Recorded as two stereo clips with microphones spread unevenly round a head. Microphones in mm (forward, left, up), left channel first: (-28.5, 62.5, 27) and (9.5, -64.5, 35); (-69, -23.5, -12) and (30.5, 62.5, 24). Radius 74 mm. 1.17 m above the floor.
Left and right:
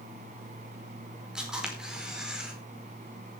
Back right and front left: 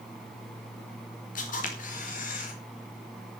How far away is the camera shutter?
About 4.5 m.